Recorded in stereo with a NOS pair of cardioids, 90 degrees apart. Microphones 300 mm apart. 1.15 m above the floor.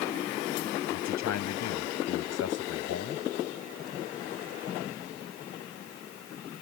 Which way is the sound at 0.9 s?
70° left.